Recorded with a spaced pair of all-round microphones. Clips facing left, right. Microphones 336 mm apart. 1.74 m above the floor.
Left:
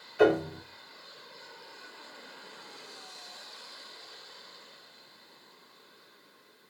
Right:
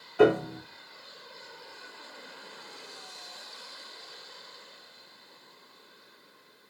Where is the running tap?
No running tap in this recording.